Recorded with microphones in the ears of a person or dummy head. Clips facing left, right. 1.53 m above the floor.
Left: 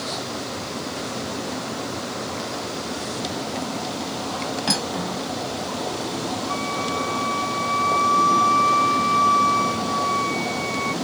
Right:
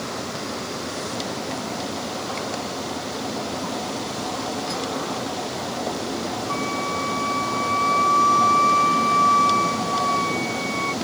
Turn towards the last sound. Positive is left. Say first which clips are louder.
# even
turn(degrees=5)  # may be behind; listen again after turning